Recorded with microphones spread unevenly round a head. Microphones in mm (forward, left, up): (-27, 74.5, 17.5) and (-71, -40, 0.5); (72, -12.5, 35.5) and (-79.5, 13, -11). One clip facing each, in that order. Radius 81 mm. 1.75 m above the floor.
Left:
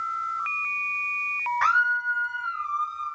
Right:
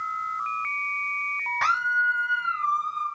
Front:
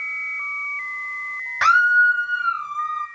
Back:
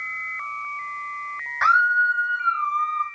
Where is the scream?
40° right, 0.9 m; by 3.0 s 70° right, 2 m.